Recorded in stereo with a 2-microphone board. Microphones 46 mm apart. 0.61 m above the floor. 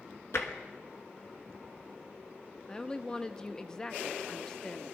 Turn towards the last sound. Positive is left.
turn(degrees=15)  # may be behind; listen again after turning